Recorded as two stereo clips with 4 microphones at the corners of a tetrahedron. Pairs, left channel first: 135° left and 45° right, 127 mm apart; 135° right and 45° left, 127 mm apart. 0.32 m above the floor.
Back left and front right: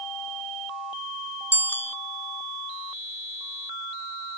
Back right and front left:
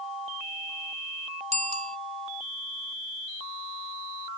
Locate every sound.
1.5 s a bicycle bell: 60° left